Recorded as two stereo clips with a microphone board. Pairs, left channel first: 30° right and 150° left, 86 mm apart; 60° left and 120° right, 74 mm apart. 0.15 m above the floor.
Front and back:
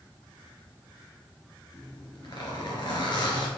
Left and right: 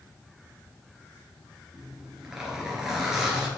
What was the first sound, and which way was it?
A zipper, 40° right.